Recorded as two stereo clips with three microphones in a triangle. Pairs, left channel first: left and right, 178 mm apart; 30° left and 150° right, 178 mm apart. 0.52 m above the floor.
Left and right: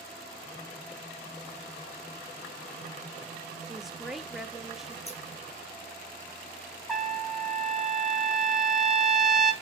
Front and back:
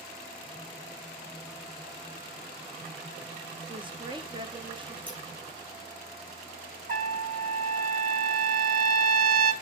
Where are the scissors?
145° left, 1.9 m.